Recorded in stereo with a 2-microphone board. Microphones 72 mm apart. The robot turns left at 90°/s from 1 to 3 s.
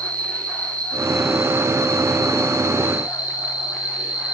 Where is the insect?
20° left, 1.8 m; by 4.3 s 160° right, 1.8 m.